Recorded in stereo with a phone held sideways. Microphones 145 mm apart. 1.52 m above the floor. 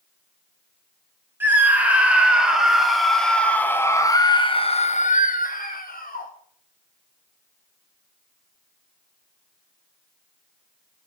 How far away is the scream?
About 3 m.